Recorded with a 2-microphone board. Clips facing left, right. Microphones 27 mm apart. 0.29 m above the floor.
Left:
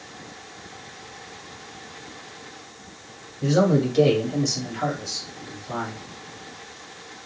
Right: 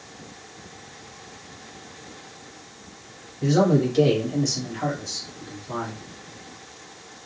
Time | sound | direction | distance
3.4 | a man speaking | 5° right (ahead or behind) | 1.5 m